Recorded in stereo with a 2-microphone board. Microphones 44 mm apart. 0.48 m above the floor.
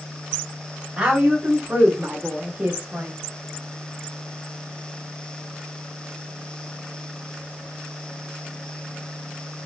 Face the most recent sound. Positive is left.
turn(degrees=-30)  # may be behind; listen again after turning